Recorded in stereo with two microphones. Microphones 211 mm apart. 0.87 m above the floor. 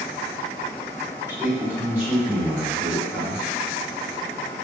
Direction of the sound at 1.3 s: 10° right (ahead or behind).